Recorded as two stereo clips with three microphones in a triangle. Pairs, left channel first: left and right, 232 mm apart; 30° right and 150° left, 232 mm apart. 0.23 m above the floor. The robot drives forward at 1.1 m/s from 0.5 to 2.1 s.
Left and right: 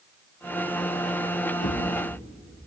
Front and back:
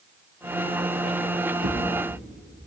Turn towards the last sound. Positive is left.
turn(degrees=125)